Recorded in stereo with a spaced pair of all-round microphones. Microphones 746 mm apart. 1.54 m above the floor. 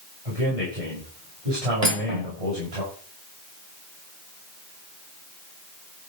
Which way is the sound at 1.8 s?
55° right (ahead or behind).